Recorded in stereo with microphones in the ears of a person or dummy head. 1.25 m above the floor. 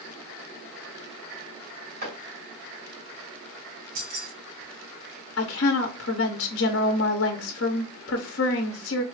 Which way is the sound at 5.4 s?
60° left (ahead or behind).